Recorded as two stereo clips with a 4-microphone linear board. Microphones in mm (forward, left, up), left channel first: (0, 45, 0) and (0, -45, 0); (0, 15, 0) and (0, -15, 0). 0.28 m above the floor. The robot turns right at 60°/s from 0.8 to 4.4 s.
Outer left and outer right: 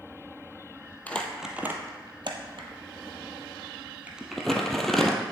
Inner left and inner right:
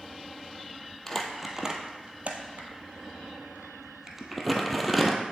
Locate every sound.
1.1 s crumpling: 15° left (ahead or behind), 1.2 m; by 5.2 s 5° left (ahead or behind), 1.2 m